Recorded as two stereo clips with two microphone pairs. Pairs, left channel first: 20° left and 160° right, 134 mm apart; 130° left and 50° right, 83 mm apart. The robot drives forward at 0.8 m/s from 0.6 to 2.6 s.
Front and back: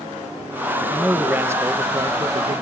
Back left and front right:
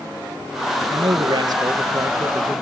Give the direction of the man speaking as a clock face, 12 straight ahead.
2 o'clock.